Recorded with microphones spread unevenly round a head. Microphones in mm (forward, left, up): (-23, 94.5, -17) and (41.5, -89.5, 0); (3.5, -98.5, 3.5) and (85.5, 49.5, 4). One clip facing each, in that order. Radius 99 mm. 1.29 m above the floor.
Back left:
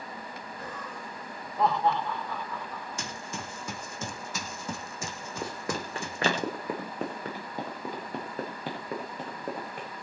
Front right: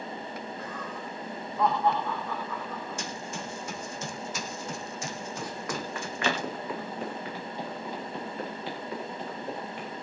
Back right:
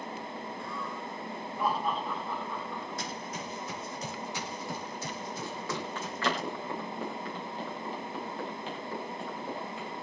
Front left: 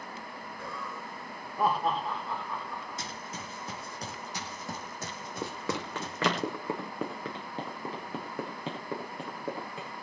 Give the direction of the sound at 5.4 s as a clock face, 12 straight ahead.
11 o'clock.